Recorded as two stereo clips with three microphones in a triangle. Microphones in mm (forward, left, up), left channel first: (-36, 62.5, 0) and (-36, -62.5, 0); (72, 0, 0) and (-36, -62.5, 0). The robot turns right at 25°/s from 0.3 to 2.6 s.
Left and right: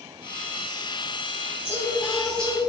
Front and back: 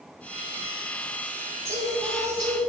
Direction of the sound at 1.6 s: 150° left.